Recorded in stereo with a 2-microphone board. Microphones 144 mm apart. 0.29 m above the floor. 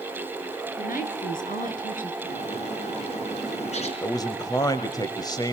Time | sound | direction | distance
0.8 | a woman speaking | 75° left (ahead or behind) | 4.5 m
2.2 | a bird | 50° left (ahead or behind) | 4 m
4.0 | a man speaking | 30° left (ahead or behind) | 1.3 m